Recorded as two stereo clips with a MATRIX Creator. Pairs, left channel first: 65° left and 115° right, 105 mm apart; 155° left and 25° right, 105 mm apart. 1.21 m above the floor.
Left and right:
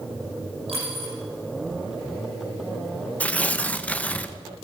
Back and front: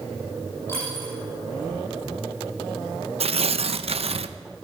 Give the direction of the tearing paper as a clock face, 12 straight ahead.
12 o'clock.